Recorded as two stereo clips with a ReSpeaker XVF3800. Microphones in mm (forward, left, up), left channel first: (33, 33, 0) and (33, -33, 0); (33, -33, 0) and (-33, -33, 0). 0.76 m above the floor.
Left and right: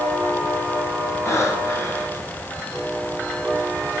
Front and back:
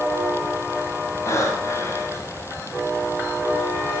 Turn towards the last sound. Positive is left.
turn(degrees=40)